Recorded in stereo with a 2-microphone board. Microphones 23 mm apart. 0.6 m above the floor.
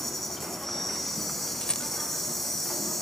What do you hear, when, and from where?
0.0 s an insect: 15° left (ahead or behind), 6.5 m
1.6 s a rattle: 40° left (ahead or behind), 0.6 m